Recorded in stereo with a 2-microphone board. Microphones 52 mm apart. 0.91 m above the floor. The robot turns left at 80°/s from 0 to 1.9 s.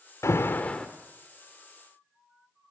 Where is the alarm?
60° left, 1.6 m; by 0.9 s 10° left, 1.6 m.